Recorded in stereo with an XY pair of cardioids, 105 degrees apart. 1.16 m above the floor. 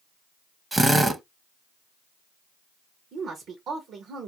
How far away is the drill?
About 0.6 m.